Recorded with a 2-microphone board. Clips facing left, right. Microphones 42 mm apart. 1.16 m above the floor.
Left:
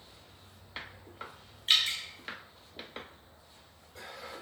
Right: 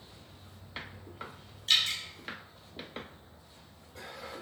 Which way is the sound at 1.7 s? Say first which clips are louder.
Even; 25° left (ahead or behind).